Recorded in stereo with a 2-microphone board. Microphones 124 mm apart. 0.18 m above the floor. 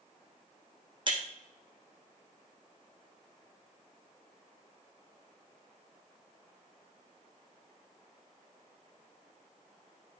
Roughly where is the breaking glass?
Right.